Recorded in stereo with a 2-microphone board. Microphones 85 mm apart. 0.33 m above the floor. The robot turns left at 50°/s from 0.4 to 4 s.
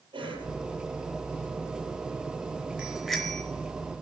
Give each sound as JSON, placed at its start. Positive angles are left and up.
{"t": 0.1, "sound": "a cough", "side_deg": -80, "distance_m": 7.5}
{"t": 2.8, "sound": "a bicycle bell", "side_deg": -10, "distance_m": 3.5}